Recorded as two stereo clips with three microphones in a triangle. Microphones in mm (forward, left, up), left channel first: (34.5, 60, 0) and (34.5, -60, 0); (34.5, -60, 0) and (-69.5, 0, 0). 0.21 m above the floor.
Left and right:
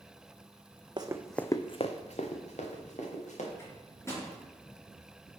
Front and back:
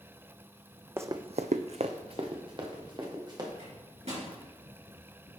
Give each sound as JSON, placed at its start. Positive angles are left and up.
{"t": 1.0, "sound": "running footsteps", "azimuth_deg": -140, "distance_m": 0.6}
{"t": 3.6, "sound": "a microwave", "azimuth_deg": 155, "distance_m": 3.0}